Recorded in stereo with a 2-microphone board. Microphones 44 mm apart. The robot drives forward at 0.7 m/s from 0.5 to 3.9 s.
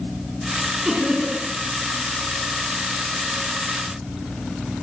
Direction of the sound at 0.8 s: 15° right (ahead or behind).